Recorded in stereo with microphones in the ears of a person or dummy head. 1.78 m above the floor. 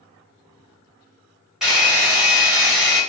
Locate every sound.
1.6 s a hair dryer: 5° right (ahead or behind), 1.3 m